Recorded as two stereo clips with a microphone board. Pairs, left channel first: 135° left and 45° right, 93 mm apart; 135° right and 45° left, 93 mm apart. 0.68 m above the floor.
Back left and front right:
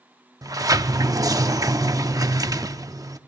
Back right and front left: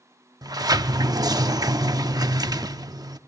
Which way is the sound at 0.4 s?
5° left.